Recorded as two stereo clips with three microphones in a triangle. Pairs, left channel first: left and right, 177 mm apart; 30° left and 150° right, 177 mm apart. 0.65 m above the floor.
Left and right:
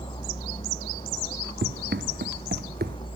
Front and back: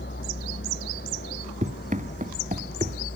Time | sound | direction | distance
0.0 | a vehicle | 30° left | ?
1.6 | running footsteps | 105° right | ?